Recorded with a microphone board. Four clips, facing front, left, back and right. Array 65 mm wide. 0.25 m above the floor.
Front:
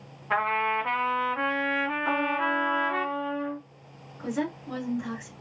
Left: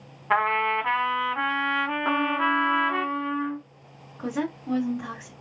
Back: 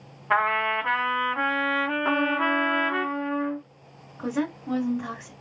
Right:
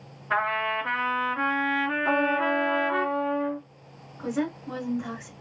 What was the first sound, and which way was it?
A trumpet, 120° left.